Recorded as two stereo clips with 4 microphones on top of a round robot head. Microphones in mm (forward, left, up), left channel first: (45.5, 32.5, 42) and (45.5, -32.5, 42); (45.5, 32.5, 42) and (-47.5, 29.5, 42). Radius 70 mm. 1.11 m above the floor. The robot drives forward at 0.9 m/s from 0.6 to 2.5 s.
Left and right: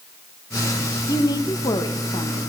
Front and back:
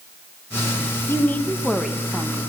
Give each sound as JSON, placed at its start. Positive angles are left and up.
{"t": 1.1, "sound": "a woman speaking", "azimuth_deg": 65, "distance_m": 1.5}